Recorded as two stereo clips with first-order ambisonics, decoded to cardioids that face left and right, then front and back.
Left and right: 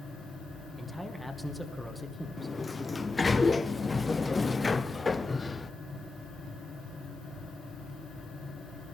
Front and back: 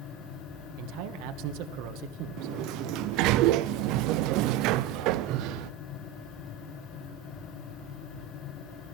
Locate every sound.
0.8 s a man speaking: straight behind, 1.9 m
2.4 s a sliding door: 170° left, 0.6 m